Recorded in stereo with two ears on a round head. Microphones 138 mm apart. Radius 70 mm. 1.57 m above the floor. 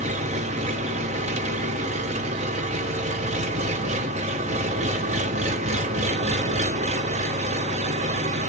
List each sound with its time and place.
0.0 s an engine running: 50° right (ahead or behind), 0.7 m